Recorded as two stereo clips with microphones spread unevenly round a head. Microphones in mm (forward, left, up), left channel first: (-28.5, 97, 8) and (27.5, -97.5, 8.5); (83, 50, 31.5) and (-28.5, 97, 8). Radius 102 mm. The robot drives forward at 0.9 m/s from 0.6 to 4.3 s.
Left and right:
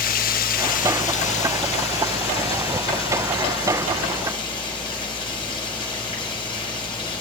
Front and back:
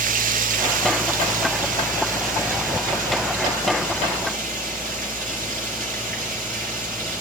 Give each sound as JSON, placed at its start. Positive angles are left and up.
{"t": 0.0, "sound": "running water", "azimuth_deg": 155, "distance_m": 1.2}